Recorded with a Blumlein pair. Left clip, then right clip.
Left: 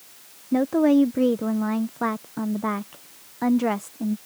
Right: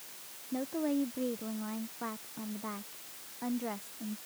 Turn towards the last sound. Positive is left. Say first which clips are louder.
# left 14 dB
turn(degrees=35)